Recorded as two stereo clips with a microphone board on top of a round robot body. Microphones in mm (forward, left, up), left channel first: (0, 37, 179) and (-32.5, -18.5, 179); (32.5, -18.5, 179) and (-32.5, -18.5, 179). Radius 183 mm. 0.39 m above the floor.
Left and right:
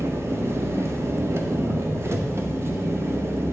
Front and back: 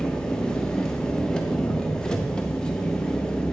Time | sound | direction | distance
0.0 | an engine running | 80° right | 0.8 m